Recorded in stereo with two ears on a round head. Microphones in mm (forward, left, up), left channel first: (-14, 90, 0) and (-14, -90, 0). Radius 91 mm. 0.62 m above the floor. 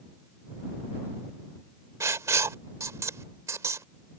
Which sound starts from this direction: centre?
Writing, at 2.0 s.